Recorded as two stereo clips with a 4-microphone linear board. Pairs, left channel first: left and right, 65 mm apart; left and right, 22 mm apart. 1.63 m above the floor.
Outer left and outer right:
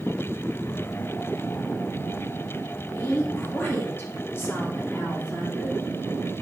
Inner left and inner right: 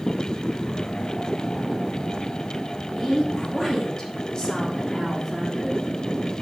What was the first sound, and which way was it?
A woman speaking, 35° left (ahead or behind).